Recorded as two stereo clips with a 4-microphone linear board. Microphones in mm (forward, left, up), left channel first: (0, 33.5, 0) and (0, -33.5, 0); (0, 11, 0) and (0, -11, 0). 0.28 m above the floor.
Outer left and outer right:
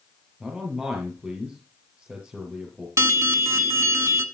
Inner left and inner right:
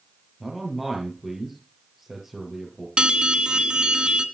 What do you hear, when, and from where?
0.4 s a man speaking: 15° right (ahead or behind), 6 m
3.0 s an alarm: 50° right (ahead or behind), 1.4 m